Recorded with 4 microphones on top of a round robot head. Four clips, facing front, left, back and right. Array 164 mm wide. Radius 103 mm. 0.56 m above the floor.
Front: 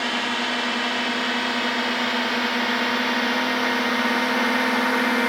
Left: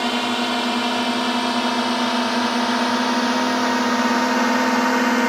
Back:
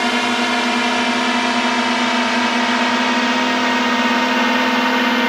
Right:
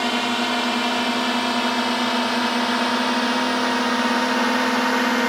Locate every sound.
0.0 s a drone: 170° left; by 5.3 s 145° left